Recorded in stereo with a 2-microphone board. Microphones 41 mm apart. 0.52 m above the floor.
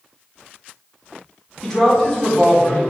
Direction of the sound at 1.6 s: 5° left (ahead or behind).